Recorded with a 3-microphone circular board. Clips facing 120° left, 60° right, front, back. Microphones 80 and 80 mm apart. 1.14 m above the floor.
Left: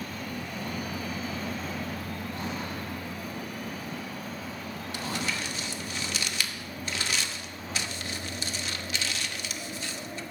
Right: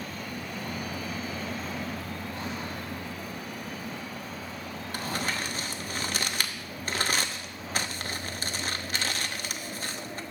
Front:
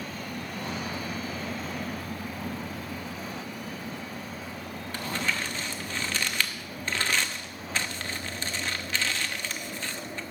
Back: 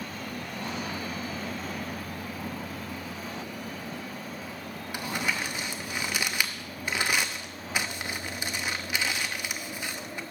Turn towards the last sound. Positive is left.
turn(degrees=-105)